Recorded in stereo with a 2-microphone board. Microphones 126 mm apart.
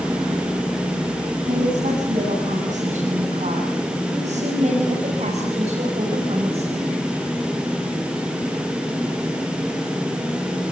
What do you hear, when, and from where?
1.4 s a woman speaking: 70° right (ahead or behind), 8.5 m; by 6.9 s 50° right (ahead or behind), 6 m